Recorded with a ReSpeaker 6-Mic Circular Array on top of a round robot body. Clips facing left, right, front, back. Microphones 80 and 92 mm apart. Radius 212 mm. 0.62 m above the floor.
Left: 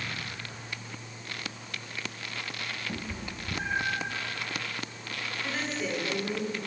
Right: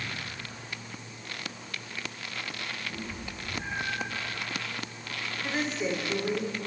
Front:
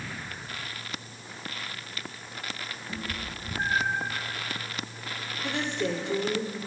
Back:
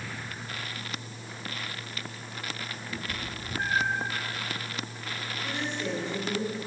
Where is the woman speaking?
15° right, 2.5 m.